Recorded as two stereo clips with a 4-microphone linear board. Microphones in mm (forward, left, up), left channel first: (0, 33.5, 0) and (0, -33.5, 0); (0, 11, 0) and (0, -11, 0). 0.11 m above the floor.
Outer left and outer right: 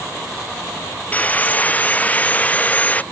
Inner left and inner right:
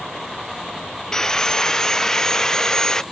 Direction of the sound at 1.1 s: 25° left (ahead or behind).